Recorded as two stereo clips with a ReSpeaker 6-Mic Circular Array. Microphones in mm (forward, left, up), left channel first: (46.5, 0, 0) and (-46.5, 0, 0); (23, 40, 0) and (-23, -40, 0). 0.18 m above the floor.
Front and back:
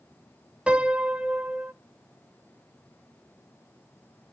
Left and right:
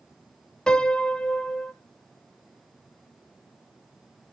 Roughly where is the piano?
Behind left.